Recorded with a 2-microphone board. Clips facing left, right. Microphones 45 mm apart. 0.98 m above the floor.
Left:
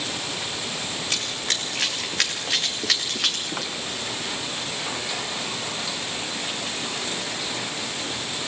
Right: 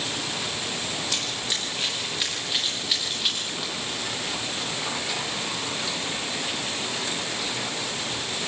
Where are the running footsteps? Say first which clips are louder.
Left 1 dB; 55° left (ahead or behind), 7 m; by 3.7 s 80° left, 7.5 m.